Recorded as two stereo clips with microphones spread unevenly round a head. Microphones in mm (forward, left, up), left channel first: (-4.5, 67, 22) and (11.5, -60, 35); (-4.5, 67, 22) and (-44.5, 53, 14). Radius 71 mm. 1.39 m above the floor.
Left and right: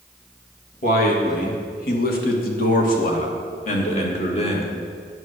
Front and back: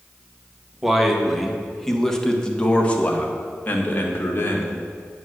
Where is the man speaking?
120° left, 2 m; by 4.7 s 50° left, 2 m.